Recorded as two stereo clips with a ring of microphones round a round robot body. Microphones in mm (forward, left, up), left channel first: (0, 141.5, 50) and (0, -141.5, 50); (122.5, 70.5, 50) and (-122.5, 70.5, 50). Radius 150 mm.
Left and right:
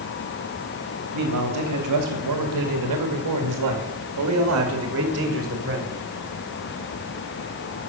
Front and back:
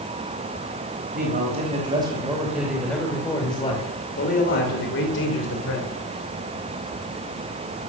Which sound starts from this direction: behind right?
A man speaking, at 1.1 s.